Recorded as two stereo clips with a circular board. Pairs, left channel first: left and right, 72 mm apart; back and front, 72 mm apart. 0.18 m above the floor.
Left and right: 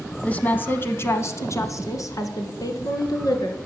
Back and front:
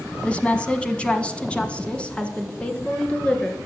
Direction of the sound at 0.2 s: 130° left.